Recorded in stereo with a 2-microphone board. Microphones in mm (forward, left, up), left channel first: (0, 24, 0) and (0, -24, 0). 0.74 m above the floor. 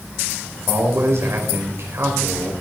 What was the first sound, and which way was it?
A man speaking, 60° right (ahead or behind).